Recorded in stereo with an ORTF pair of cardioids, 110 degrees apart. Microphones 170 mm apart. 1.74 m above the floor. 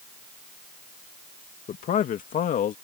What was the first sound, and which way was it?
A man speaking, 55° left.